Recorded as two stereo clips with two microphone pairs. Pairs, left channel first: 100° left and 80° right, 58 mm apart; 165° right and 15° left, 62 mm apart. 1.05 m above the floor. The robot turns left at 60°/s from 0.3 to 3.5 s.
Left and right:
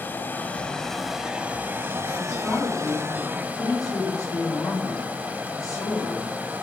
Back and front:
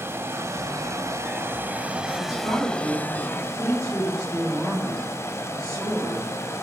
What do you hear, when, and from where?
0.0 s running water: 50° left, 1.3 m; by 6.6 s 140° right, 1.3 m
2.2 s a woman speaking: 175° right, 3.5 m; by 6.3 s 105° left, 3.5 m